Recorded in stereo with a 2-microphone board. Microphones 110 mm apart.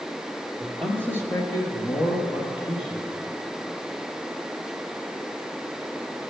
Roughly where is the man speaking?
Centre.